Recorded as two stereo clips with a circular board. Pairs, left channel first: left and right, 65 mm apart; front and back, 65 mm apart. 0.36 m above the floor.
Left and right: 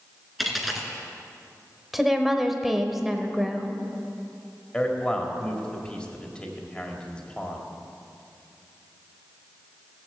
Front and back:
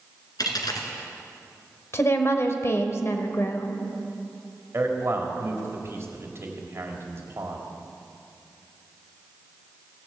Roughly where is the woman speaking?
Ahead.